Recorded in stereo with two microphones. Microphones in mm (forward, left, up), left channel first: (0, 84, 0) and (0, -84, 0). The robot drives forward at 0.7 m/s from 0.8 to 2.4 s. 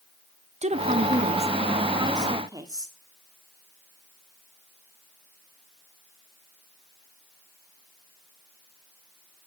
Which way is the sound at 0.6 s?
40° right (ahead or behind).